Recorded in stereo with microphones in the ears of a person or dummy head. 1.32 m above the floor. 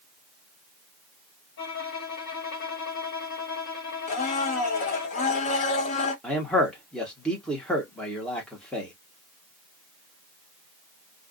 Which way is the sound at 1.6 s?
55° left (ahead or behind).